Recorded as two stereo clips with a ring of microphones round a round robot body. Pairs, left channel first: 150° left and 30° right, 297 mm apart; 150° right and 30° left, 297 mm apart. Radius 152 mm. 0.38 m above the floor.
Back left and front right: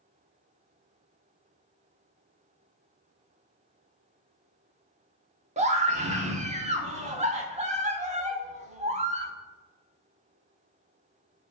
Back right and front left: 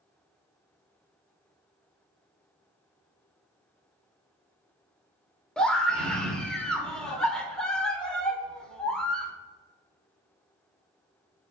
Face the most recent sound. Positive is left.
turn(degrees=-65)